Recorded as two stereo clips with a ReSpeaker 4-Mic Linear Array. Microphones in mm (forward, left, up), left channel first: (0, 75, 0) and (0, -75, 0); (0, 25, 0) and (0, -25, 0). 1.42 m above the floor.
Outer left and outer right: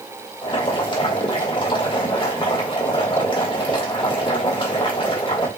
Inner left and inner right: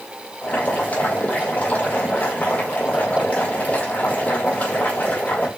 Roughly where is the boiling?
Left.